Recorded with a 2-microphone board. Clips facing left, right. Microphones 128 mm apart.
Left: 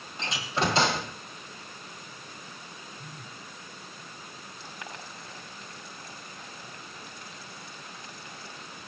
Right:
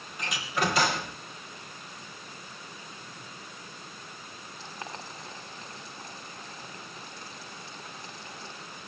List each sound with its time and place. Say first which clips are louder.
0.2 s a door slam: left 1 dB; 25° left (ahead or behind), 2.5 m
3.0 s a phone buzzing: left 1 dB; 60° left (ahead or behind), 0.9 m
4.6 s boiling: right 3 dB; 25° right (ahead or behind), 5.5 m